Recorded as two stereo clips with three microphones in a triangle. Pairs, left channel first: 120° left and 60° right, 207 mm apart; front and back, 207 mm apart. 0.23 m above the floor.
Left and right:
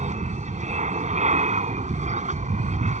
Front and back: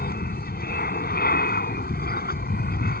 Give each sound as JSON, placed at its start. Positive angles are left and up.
{"t": 0.0, "sound": "an aircraft", "azimuth_deg": -15}